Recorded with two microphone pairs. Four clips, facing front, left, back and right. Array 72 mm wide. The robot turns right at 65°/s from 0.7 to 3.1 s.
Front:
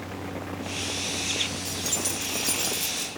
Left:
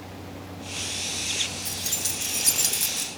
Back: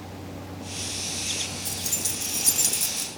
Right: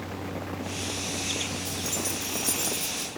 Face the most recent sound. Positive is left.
turn(degrees=125)